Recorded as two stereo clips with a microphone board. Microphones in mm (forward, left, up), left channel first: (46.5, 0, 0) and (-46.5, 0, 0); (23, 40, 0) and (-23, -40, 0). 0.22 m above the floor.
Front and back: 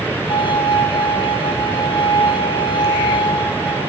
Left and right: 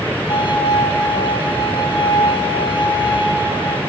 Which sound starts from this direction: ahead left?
A violin, at 0.3 s.